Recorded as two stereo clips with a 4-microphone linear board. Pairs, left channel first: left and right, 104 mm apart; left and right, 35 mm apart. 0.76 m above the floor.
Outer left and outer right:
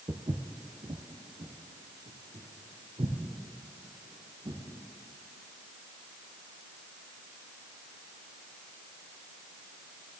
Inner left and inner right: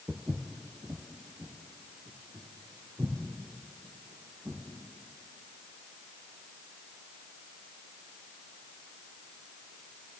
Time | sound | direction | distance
0.1 | footsteps | 50° right (ahead or behind) | 1.1 m